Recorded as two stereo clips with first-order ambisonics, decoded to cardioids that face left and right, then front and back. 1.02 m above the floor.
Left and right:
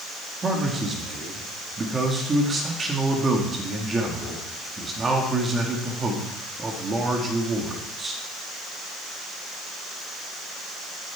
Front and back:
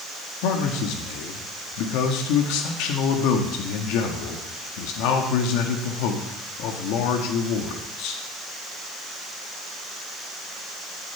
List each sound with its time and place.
0.4 s a man speaking: 15° right, 1.7 m